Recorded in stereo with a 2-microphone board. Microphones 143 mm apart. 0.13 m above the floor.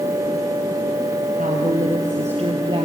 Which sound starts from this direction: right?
A woman speaking, at 1.4 s.